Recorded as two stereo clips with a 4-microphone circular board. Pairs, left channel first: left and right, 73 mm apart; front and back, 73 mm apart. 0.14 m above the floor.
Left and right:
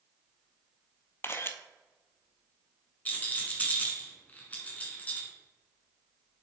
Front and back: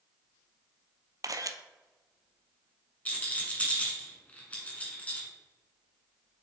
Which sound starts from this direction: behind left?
A camera shutter, at 1.2 s.